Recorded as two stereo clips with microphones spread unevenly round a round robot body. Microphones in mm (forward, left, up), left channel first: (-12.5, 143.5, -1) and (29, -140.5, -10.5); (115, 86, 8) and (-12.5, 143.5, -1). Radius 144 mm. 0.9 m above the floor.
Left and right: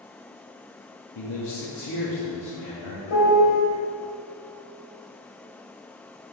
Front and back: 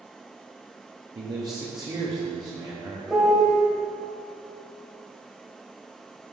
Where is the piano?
70° left, 1.7 m.